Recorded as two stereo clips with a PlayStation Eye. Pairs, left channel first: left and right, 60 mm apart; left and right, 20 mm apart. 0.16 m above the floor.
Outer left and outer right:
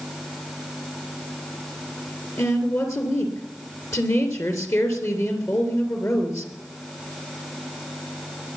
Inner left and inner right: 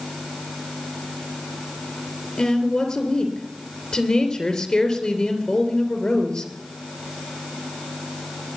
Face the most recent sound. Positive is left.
turn(degrees=50)  # may be behind; listen again after turning